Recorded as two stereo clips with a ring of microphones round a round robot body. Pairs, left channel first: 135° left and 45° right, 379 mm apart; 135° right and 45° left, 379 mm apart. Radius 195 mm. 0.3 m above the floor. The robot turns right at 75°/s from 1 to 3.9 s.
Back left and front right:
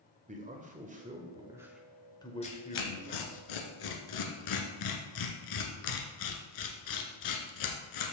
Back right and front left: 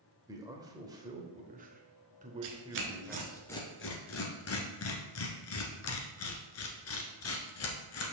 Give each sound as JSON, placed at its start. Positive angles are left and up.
{"t": 0.3, "sound": "a man speaking", "azimuth_deg": -20, "distance_m": 1.2}
{"t": 2.4, "sound": "tearing paper", "azimuth_deg": 60, "distance_m": 1.5}